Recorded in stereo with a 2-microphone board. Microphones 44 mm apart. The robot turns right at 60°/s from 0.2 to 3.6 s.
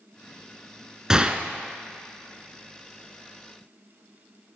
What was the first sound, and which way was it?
A gunshot, 15° right (ahead or behind).